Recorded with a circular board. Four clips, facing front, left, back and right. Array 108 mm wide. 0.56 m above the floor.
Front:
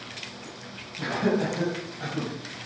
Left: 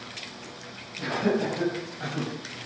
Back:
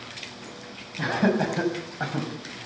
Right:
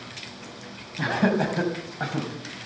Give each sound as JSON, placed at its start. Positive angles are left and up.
{"t": 1.0, "sound": "laughter", "azimuth_deg": -125, "distance_m": 5.0}